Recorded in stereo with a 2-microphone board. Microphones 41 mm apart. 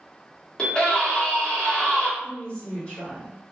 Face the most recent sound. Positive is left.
turn(degrees=30)  # may be behind; listen again after turning